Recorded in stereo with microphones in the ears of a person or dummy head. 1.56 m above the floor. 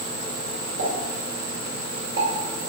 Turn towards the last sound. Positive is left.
turn(degrees=-75)  # may be behind; listen again after turning